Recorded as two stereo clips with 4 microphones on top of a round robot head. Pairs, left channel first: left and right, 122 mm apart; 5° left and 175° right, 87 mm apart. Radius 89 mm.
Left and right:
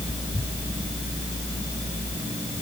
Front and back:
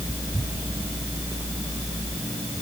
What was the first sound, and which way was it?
Only background noise.